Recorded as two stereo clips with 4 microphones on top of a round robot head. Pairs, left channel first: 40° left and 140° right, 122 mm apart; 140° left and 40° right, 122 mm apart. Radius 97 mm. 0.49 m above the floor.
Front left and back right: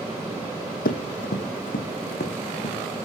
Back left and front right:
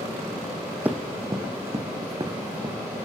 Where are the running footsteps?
35° left, 1.3 m; by 2.8 s 20° left, 3 m.